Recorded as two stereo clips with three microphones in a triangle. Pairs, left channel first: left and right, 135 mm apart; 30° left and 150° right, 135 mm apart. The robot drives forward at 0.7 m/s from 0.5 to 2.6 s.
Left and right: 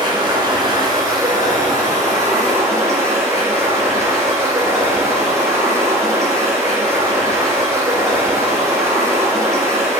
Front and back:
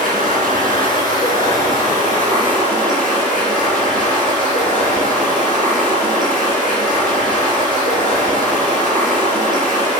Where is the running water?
145° right, 3 m; by 10.0 s 155° right, 4.5 m.